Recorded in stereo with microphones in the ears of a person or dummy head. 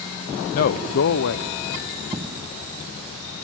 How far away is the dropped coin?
About 2.5 m.